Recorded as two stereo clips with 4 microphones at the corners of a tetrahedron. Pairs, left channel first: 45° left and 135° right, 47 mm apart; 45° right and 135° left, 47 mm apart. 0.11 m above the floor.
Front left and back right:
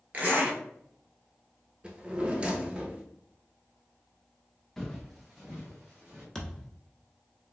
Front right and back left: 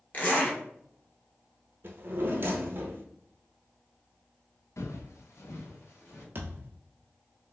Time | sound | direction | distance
0.1 | a zipper | 85° right | 1.2 m
1.8 | a drawer | 160° left | 0.7 m
4.8 | footsteps | 40° right | 0.6 m
6.3 | a thud | 125° left | 0.8 m